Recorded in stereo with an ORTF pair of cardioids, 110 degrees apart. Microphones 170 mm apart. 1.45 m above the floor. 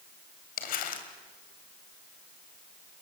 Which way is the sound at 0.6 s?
60° left.